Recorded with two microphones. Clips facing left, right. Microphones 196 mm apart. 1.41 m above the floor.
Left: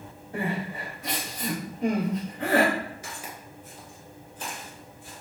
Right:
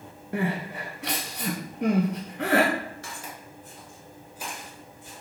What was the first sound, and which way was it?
Crying, 75° right (ahead or behind).